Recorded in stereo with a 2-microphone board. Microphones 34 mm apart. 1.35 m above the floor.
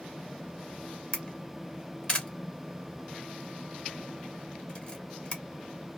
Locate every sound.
1.1 s a camera shutter: 30° left (ahead or behind), 1.1 m